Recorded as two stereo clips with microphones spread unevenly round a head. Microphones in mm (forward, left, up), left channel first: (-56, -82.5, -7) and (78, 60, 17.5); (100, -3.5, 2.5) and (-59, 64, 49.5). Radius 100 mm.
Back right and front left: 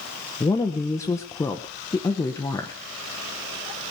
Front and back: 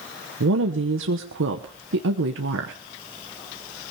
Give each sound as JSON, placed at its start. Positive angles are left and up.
{"t": 0.4, "sound": "a woman speaking", "azimuth_deg": 155, "distance_m": 1.1}